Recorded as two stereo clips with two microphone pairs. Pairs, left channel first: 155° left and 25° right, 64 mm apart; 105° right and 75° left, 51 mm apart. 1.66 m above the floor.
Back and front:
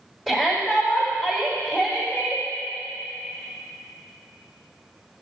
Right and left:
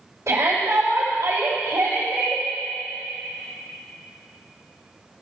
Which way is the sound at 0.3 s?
70° left.